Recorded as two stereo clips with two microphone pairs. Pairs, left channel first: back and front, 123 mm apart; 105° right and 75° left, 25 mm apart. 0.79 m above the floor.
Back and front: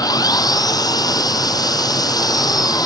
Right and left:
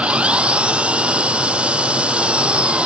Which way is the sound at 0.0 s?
120° left.